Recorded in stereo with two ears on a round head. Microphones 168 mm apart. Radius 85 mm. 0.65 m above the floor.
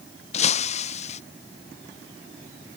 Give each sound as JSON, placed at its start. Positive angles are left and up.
{"t": 0.3, "sound": "breaking glass", "side_deg": 40}